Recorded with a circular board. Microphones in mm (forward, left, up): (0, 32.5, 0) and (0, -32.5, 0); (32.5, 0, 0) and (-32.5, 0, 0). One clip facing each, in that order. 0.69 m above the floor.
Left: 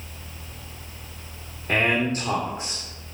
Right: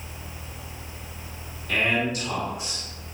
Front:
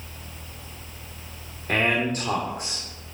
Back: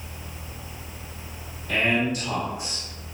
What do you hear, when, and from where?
1.7 s a man speaking: 40° left, 1.5 m